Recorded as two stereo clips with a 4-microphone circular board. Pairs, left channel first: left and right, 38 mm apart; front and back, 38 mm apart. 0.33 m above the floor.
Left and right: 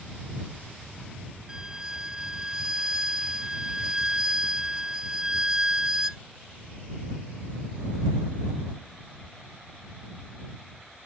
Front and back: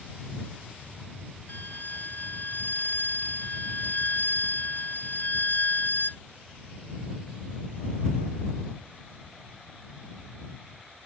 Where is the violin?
20° right.